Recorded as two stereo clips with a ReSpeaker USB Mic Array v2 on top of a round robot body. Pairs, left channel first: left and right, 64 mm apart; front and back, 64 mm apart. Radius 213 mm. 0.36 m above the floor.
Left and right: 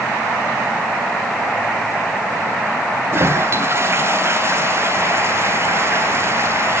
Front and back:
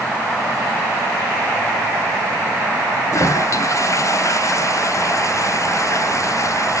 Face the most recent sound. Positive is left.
turn(degrees=-40)